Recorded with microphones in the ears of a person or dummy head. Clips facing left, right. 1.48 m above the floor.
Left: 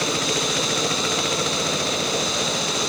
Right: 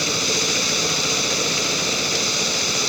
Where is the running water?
35° right (ahead or behind).